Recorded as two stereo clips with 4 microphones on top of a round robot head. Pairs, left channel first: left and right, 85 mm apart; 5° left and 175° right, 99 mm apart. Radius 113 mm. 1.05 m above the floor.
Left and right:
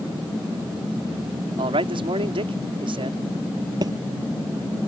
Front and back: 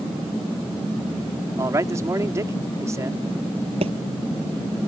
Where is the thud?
140° right.